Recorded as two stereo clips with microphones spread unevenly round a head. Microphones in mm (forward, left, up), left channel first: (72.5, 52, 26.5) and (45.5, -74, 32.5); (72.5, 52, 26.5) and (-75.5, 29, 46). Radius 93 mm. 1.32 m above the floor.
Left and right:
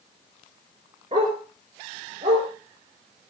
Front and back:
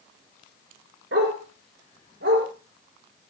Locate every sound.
1.1 s a dog barking: 160° right, 5 m; by 2.5 s 155° right, 6 m